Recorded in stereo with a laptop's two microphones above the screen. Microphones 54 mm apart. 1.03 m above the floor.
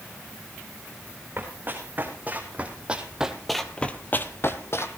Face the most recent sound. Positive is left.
turn(degrees=50)  # may be behind; listen again after turning